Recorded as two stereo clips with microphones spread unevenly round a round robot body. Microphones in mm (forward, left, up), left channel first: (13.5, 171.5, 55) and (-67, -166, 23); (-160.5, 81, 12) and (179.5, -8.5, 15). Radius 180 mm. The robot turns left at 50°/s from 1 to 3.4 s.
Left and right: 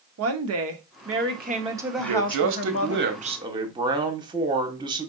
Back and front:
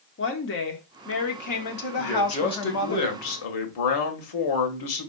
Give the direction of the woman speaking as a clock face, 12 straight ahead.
5 o'clock.